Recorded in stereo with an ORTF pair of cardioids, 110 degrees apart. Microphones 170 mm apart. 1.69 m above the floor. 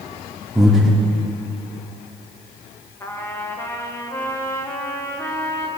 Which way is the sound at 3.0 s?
15° left.